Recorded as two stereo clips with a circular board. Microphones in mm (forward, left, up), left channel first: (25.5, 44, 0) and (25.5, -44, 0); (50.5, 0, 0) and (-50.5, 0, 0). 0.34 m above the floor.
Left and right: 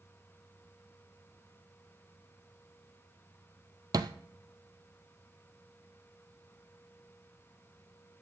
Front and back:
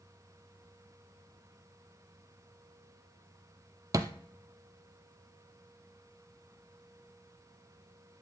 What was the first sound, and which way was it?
A thud, 125° right.